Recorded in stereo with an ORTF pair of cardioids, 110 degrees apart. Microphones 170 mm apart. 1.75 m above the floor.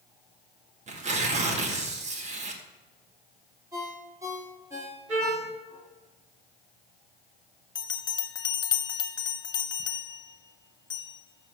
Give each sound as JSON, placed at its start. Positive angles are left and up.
{"t": 0.9, "sound": "tearing paper", "azimuth_deg": -45, "distance_m": 1.6}
{"t": 3.7, "sound": "a ringtone", "azimuth_deg": -20, "distance_m": 3.0}
{"t": 5.1, "sound": "a trumpet", "azimuth_deg": -45, "distance_m": 5.0}
{"t": 7.8, "sound": "a bell", "azimuth_deg": 25, "distance_m": 0.8}